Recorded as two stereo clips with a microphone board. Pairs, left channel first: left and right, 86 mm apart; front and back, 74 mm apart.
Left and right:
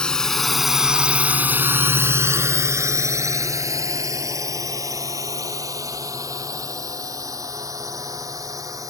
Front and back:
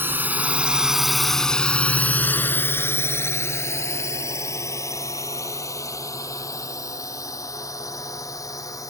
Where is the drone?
160° left; by 8.9 s 40° right.